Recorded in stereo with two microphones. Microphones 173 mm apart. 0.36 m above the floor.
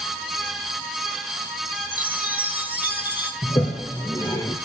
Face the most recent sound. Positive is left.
turn(degrees=20)  # may be behind; listen again after turning